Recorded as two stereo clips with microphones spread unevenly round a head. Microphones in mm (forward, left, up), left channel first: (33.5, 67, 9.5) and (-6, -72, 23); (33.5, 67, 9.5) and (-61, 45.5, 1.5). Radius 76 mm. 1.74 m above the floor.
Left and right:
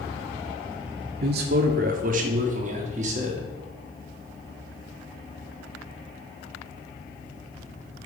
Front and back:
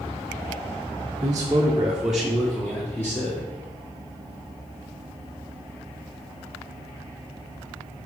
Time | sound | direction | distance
1.2 | a man speaking | 110° right | 0.6 m